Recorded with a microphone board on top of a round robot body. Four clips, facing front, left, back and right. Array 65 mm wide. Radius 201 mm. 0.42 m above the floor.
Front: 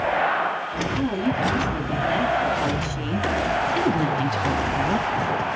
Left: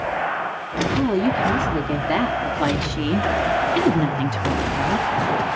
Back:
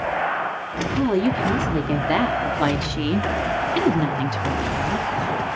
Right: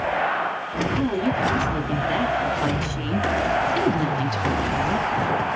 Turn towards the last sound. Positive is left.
turn(degrees=10)